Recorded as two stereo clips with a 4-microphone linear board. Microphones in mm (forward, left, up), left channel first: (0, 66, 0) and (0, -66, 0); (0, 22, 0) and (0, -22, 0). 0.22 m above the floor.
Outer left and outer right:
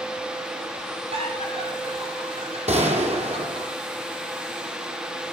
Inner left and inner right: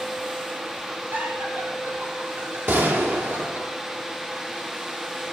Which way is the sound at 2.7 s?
55° right (ahead or behind).